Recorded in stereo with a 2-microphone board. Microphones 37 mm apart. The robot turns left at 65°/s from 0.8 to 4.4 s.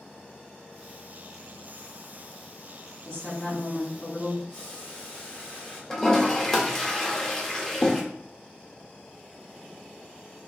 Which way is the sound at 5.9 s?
15° left (ahead or behind).